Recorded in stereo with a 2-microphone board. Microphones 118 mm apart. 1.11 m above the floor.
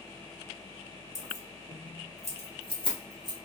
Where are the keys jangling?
70° left (ahead or behind), 1.1 m; by 3.4 s 35° left (ahead or behind), 1.5 m.